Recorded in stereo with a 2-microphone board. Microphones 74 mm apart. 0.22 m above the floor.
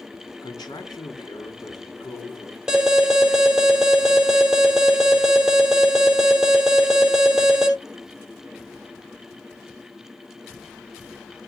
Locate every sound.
0.4 s a man speaking: 70° left (ahead or behind), 4 m
2.7 s an alarm: 10° right (ahead or behind), 4 m